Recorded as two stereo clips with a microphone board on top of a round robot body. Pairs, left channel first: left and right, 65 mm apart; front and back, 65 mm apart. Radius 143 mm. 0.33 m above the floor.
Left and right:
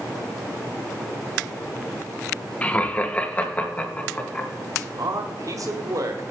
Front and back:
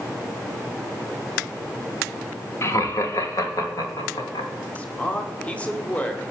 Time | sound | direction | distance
2.6 | laughter | 30° left | 1.5 m
4.8 | a man speaking | 70° right | 1.8 m